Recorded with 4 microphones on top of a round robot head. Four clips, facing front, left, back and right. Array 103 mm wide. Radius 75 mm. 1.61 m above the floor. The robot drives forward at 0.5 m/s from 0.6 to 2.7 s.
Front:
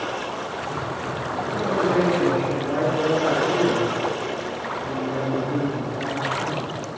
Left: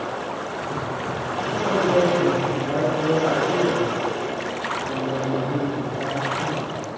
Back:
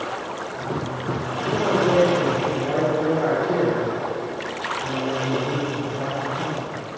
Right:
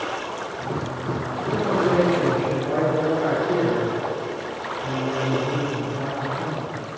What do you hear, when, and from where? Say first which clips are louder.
1.5 s a man speaking: even, back 3 dB; 150° right, 6.5 m